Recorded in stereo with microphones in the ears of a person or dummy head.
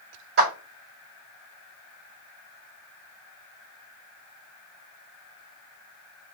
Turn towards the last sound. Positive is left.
turn(degrees=-85)